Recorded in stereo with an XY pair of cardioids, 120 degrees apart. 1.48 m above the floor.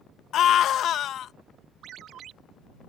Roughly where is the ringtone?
Ahead right.